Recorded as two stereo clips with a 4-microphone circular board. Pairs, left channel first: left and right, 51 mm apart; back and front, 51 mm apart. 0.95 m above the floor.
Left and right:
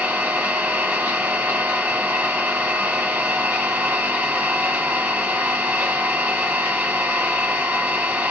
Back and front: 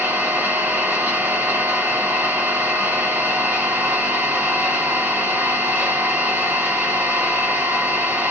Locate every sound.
0.0 s an engine running: 40° right, 1.5 m